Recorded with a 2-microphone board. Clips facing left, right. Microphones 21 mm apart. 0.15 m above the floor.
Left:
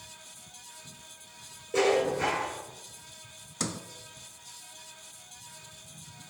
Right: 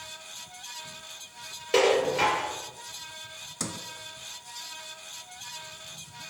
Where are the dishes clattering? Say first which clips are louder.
Right 3 dB; 70° right (ahead or behind), 2.5 m.